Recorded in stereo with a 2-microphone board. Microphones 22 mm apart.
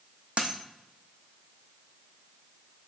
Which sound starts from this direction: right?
A dropped coin, at 0.4 s.